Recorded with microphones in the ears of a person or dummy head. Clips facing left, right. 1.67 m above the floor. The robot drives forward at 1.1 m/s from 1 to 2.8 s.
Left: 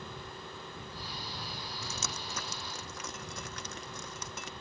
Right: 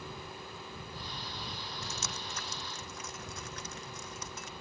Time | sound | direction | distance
1.8 | dripping | 85° left | ?